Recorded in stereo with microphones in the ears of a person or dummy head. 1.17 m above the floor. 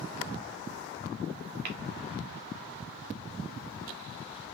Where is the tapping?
45° right (ahead or behind), 0.8 m.